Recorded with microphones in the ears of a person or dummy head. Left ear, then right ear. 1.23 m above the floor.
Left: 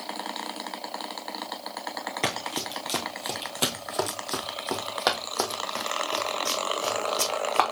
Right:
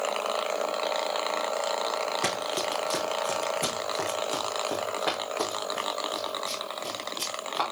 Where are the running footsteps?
20° left (ahead or behind), 1.3 m; by 7.6 s 65° left (ahead or behind), 3.5 m.